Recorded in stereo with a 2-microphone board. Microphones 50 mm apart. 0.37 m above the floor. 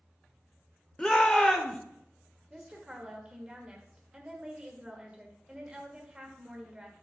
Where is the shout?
20° left (ahead or behind), 0.9 m.